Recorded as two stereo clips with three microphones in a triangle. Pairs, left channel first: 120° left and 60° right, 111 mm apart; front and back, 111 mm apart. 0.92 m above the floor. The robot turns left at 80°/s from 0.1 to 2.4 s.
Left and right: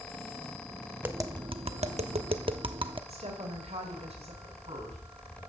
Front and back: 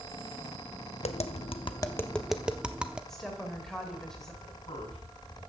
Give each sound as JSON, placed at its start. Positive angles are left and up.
{"t": 1.0, "sound": "tapping", "azimuth_deg": 10, "distance_m": 0.7}
{"t": 3.1, "sound": "a woman speaking", "azimuth_deg": -85, "distance_m": 3.5}
{"t": 4.4, "sound": "a man speaking", "azimuth_deg": -45, "distance_m": 7.0}